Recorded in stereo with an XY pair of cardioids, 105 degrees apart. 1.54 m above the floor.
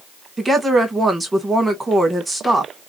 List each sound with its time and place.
0.4 s a woman speaking: 15° right, 1.6 m